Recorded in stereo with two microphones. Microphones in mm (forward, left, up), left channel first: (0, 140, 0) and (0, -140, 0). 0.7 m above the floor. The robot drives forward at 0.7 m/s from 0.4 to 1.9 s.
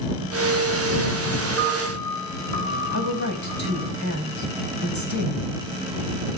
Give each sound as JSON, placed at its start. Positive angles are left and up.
{"t": 1.6, "sound": "a piano", "side_deg": 15, "distance_m": 7.5}
{"t": 2.9, "sound": "a woman speaking", "side_deg": -80, "distance_m": 4.0}